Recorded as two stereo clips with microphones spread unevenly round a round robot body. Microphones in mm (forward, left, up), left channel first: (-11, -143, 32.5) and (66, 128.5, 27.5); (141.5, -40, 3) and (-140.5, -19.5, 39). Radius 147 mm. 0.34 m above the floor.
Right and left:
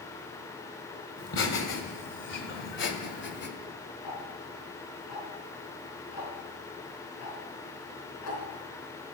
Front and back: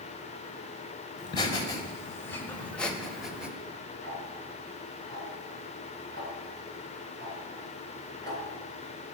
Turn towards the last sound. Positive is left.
turn(degrees=-80)